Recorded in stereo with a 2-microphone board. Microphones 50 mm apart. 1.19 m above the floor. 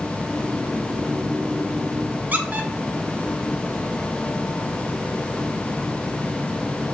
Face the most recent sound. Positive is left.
turn(degrees=-35)  # may be behind; listen again after turning